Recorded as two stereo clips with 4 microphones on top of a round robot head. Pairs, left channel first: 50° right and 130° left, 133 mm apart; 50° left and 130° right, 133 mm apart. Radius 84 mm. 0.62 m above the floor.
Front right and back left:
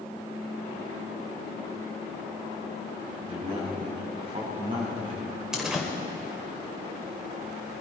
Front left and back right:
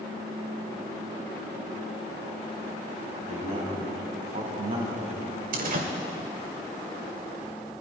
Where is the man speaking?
Straight behind, 4.5 m.